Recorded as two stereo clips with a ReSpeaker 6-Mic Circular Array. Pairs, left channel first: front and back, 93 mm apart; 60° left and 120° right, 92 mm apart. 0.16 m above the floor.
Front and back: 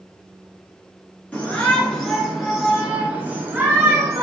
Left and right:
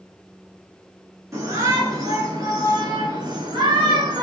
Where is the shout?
70° right, 2.0 m; by 4.2 s 130° right, 1.9 m.